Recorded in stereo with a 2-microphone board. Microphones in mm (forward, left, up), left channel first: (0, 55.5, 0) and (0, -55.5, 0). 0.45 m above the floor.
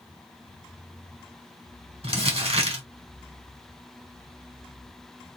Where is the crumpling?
60° right (ahead or behind), 1.3 m.